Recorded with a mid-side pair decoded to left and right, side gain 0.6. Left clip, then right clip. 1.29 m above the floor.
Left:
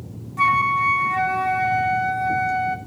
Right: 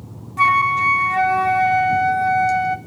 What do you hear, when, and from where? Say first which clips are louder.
0.4 s a flute: right 3 dB; 20° right, 1.7 m